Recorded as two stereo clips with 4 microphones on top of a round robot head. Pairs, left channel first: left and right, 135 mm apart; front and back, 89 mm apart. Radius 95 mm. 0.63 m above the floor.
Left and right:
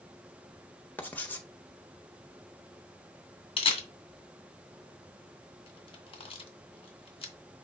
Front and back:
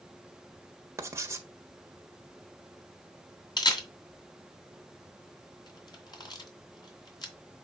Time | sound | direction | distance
1.0 | writing | 155° left | 1.3 m
3.6 | a camera shutter | 40° left | 2 m